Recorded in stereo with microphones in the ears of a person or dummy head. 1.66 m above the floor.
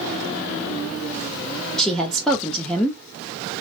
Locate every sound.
1.8 s a woman speaking: 5° left (ahead or behind), 0.6 m